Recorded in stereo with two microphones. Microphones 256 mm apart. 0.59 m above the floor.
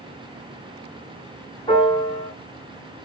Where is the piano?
20° left (ahead or behind), 1.7 m.